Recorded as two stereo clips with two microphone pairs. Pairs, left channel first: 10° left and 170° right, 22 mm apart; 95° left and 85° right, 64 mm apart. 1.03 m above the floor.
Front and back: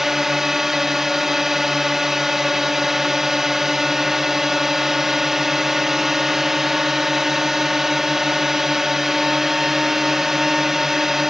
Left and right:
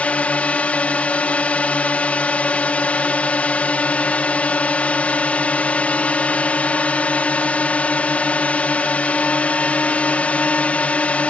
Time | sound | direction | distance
0.0 | a drone | 130° left | ?